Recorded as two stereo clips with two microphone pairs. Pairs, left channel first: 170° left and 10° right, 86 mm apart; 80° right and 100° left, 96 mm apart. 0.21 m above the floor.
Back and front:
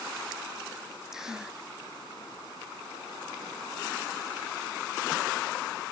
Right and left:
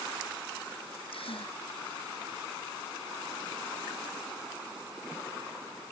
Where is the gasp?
90° right.